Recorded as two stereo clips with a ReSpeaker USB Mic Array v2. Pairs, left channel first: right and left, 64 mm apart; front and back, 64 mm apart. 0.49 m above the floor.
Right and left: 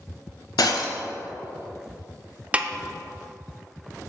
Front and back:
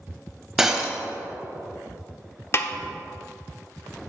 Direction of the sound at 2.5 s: 30° left.